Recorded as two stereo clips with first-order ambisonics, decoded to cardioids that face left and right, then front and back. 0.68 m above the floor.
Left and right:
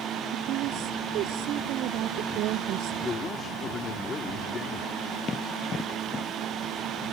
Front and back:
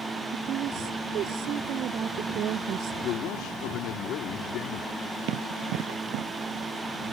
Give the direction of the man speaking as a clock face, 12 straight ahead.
11 o'clock.